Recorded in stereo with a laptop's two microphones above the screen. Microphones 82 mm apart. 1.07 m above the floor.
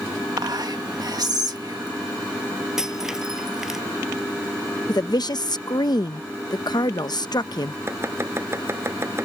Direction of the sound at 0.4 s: 55° right (ahead or behind).